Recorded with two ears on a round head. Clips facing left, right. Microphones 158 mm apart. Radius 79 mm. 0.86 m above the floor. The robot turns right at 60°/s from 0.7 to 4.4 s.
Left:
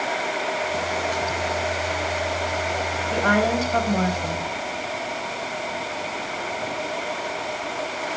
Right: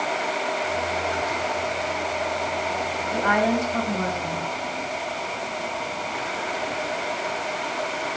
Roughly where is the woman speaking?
Ahead left.